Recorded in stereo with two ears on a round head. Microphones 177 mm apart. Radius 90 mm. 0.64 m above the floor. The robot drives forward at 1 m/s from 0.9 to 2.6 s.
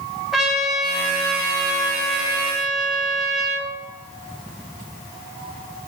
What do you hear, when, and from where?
0.3 s a trumpet: centre (ahead or behind), 3 m